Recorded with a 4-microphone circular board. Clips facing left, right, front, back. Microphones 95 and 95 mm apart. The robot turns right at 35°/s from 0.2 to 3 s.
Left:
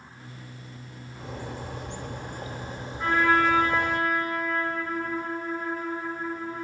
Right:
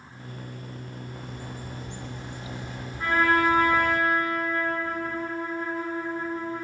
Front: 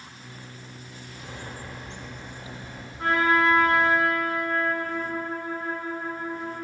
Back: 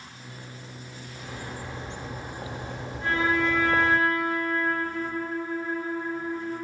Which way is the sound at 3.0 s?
5° left.